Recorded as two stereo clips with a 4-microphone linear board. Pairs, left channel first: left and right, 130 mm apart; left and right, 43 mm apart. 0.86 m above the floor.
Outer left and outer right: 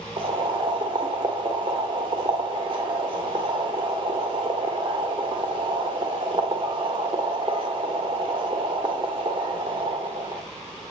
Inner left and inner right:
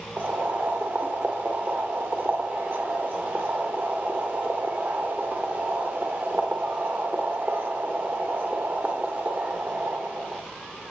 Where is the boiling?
40° right (ahead or behind), 1.5 m.